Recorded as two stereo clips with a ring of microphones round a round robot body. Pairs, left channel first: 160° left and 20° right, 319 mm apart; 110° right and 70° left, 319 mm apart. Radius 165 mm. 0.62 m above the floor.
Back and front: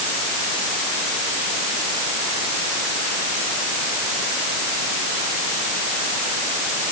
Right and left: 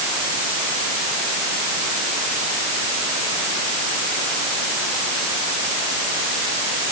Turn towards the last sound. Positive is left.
No sound to turn to.